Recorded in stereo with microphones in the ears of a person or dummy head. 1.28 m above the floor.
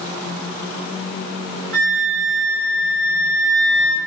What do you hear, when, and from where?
1.7 s a flute: 70° right (ahead or behind), 2.5 m